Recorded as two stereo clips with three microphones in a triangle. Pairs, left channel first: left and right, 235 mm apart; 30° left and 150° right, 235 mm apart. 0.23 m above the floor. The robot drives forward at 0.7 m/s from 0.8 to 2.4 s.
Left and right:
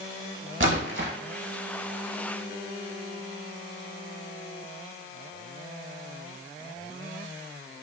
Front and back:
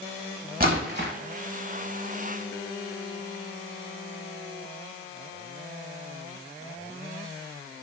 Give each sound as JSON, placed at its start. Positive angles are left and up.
{"t": 0.6, "sound": "a splash", "azimuth_deg": -105, "distance_m": 0.7}